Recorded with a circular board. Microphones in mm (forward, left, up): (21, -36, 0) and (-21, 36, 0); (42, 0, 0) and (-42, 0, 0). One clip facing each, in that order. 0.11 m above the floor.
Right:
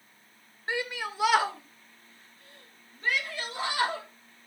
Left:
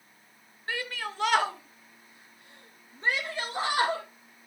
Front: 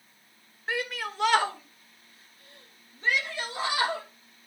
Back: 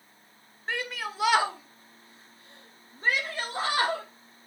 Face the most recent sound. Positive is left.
turn(degrees=150)